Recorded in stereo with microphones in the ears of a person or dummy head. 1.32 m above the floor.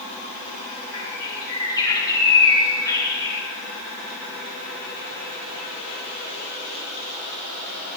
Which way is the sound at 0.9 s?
25° left (ahead or behind).